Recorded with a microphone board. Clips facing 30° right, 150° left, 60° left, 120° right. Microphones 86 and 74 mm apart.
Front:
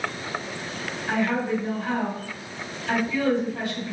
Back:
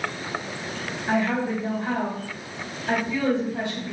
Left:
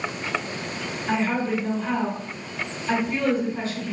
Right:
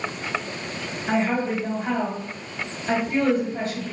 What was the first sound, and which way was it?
A woman speaking, 150° right.